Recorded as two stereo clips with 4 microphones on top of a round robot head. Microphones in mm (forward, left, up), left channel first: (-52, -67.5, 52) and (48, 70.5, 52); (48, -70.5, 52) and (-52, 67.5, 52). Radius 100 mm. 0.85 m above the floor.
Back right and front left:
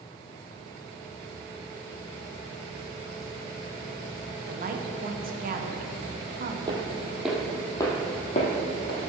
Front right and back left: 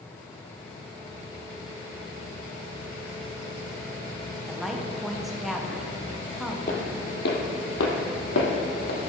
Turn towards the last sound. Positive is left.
turn(degrees=-85)